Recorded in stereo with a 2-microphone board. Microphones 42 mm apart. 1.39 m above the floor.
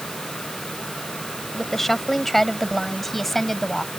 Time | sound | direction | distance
1.5 | a woman speaking | 5° left (ahead or behind) | ?